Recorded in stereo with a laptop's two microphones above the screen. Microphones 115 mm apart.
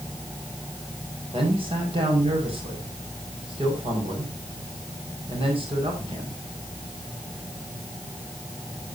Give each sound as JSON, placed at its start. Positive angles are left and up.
{"t": 1.3, "sound": "a man speaking", "side_deg": -50, "distance_m": 6.0}